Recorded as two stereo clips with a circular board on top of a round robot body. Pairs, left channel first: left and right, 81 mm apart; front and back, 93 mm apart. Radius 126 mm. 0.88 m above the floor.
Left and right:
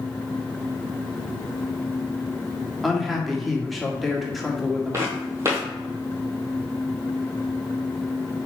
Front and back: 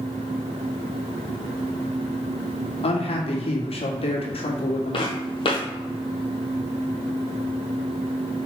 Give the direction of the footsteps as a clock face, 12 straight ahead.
1 o'clock.